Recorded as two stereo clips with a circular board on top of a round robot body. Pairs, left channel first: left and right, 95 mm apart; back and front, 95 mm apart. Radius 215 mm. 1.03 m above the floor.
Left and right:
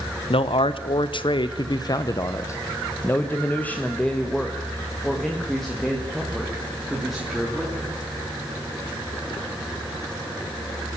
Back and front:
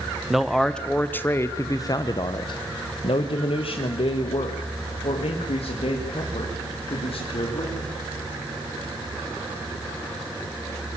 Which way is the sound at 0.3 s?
85° left.